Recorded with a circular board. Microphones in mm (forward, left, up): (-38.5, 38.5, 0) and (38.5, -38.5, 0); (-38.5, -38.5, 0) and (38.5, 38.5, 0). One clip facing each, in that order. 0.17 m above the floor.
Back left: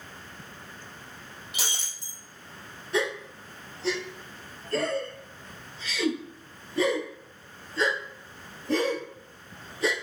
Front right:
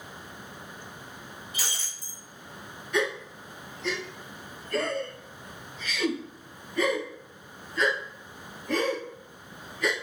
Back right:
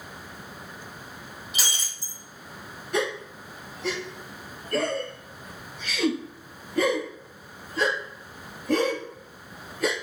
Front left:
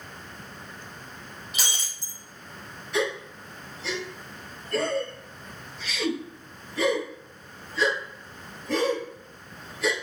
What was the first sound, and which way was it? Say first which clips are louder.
Breaking glass: back left 3 dB, even; 135° left.